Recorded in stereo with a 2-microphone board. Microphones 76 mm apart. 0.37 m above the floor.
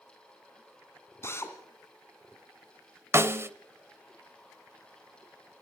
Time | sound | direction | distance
1.2 | a drill | 35° left (ahead or behind) | 2 m
3.1 | a snare drum | 35° right (ahead or behind) | 0.6 m